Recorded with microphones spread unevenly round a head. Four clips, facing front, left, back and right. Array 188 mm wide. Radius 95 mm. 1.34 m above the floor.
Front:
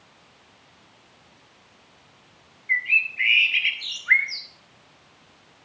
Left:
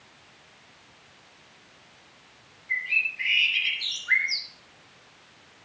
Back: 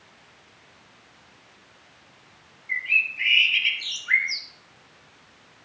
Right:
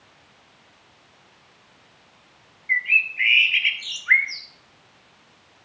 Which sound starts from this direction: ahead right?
A bird, at 2.7 s.